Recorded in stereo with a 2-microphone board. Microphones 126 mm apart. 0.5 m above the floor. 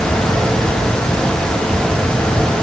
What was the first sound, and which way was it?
Only background noise.